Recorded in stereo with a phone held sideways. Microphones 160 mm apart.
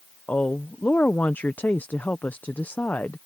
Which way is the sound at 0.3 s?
10° left (ahead or behind).